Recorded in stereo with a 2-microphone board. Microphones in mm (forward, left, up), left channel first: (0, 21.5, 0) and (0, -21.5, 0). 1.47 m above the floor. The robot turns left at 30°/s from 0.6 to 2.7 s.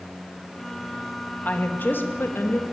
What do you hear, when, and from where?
1.4 s a woman speaking: 140° left, 2 m; by 2.6 s 105° left, 2 m